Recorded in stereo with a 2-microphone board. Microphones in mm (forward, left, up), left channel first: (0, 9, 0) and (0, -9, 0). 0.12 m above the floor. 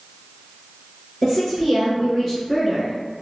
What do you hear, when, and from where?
1.2 s a woman speaking: 5° left (ahead or behind), 1.5 m; by 2.9 s 5° right (ahead or behind), 1.1 m